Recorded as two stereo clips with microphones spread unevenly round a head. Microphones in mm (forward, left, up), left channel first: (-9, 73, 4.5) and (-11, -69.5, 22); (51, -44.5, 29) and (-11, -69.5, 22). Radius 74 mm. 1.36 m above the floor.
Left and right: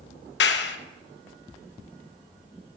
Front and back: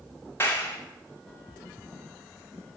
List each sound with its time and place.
0.4 s a clap: 95° left, 0.8 m